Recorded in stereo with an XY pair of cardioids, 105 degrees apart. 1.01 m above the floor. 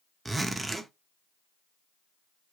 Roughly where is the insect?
No insect in this recording.